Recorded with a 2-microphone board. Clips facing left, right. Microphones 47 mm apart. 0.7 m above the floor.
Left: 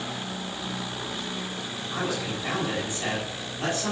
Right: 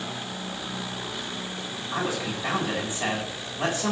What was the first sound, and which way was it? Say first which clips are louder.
A man speaking: right 1 dB; 30° right (ahead or behind).